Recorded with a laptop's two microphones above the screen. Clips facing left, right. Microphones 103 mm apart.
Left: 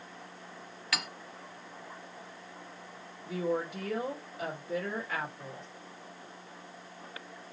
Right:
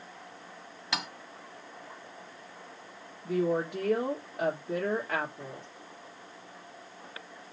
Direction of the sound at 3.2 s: 65° right (ahead or behind).